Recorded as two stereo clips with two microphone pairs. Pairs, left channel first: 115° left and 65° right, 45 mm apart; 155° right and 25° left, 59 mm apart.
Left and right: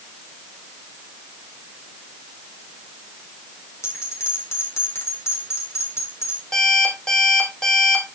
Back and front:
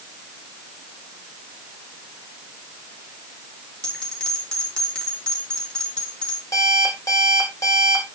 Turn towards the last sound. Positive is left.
turn(degrees=-175)